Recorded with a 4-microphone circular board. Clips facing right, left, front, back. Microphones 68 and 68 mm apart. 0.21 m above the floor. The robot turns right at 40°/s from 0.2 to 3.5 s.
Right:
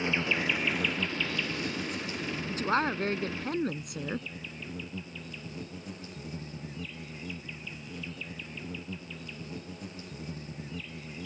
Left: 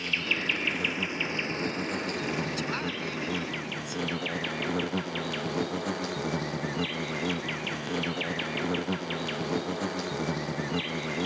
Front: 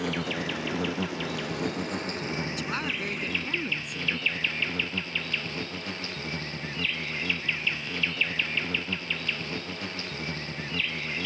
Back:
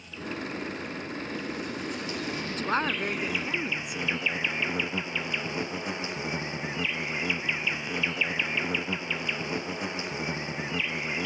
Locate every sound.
0.0 s an insect: 25° right; by 11.3 s 105° left
2.5 s a woman speaking: 140° right; by 4.3 s 100° right